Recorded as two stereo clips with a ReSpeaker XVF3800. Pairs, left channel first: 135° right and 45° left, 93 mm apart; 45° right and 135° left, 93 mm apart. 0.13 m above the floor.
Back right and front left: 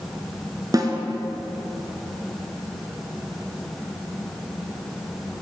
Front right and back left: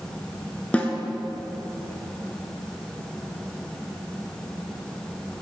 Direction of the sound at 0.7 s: 25° left.